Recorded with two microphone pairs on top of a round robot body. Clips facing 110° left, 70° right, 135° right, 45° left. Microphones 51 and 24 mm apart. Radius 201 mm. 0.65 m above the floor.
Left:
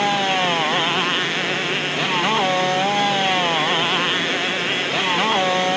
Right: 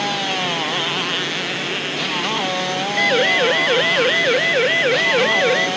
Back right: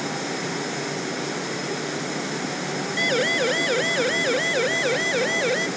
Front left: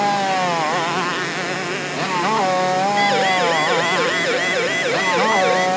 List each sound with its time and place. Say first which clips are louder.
0.0 s a motorcycle: left 3 dB, front left 10 dB; 40° left
3.0 s a siren: right 3 dB, front left 1 dB; 40° right; by 5.7 s 35° right